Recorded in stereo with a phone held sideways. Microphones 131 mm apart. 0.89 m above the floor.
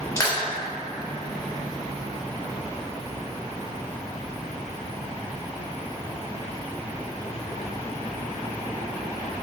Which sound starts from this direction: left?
Crushing, at 0.2 s.